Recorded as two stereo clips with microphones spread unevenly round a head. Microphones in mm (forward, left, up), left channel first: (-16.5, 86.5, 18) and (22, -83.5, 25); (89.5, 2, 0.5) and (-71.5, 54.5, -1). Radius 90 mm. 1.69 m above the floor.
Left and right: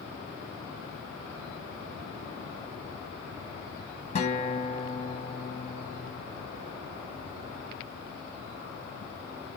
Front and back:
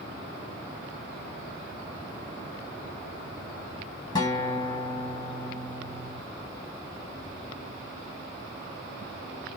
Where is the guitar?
50° left, 1.3 m.